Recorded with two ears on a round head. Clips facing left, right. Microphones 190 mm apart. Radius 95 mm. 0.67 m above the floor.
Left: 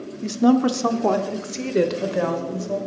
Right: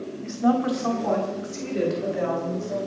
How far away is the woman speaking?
About 1.5 m.